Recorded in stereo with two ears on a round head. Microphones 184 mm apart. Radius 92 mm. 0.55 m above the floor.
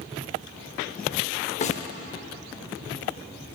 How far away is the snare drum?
About 0.8 m.